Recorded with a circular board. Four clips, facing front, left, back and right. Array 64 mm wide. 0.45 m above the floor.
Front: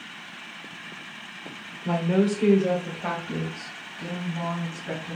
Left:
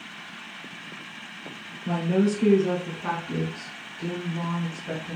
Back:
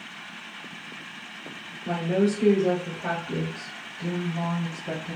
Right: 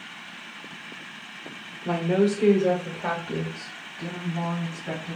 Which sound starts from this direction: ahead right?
A woman speaking, at 1.9 s.